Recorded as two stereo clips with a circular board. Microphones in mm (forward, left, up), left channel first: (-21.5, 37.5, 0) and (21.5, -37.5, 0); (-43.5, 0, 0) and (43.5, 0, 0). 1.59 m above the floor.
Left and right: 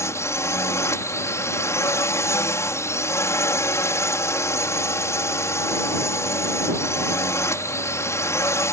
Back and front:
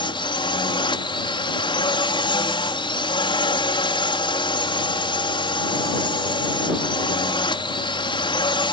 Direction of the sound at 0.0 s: 175° left.